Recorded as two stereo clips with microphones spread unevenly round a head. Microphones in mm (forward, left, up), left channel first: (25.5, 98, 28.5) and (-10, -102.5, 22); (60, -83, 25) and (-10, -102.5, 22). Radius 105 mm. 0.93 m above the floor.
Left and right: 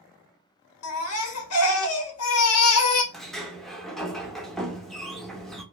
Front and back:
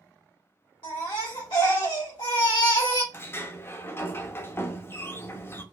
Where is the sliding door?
5° right, 0.6 m.